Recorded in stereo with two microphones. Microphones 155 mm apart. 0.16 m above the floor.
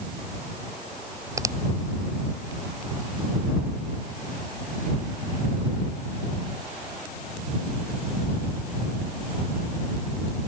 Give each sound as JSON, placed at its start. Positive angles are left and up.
{"t": 1.4, "sound": "a finger snap", "side_deg": -20}